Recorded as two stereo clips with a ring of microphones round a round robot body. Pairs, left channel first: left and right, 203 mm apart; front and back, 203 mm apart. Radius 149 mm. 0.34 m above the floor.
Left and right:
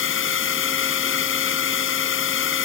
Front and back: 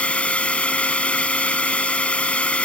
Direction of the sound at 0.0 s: 85° left.